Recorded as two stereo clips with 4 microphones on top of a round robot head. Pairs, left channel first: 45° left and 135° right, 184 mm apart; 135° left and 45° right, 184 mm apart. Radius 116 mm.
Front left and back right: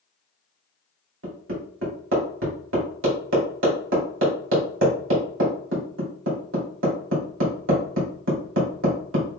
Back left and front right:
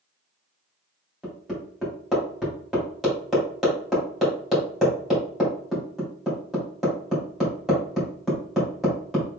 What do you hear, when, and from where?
1.2 s hammering: 135° right, 3 m